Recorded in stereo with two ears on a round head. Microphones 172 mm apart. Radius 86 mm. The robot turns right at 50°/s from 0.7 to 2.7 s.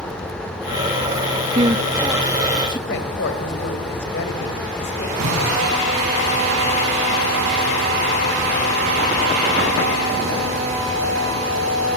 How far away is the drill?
About 8.5 m.